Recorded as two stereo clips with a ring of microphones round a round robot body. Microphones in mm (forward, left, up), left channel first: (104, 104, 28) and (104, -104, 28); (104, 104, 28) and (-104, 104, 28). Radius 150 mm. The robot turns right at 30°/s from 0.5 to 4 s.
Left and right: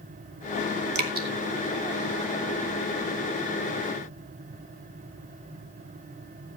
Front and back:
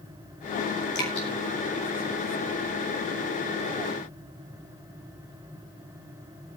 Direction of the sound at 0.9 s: 55° right.